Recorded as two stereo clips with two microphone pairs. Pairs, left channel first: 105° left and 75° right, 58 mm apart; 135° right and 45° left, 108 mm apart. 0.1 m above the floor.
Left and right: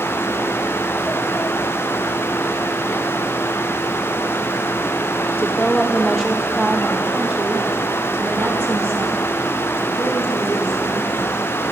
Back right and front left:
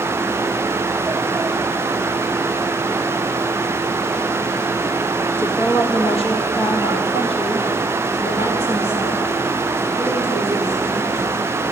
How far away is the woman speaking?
About 3.5 m.